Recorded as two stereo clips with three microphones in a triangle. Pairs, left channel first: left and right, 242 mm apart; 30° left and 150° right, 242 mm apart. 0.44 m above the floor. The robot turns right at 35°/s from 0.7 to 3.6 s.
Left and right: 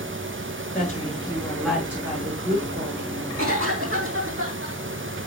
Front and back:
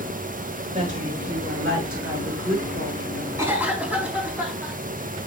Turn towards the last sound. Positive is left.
turn(degrees=-65)